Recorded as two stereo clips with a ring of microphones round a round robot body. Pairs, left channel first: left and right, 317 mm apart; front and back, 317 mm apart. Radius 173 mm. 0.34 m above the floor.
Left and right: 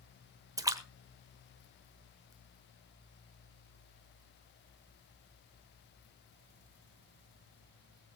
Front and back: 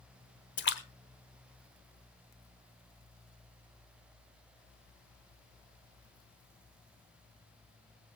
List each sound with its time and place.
0.6 s a splash: 20° right, 1.2 m